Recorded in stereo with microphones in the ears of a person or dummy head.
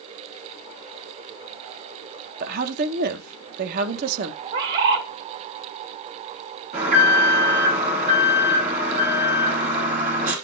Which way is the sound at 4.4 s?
55° right (ahead or behind).